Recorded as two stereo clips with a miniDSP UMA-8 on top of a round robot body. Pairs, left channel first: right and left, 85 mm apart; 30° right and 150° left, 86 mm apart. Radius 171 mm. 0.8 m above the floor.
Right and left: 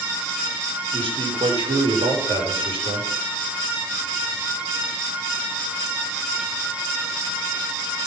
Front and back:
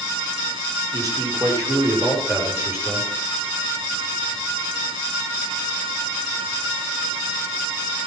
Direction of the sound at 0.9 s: 105° left.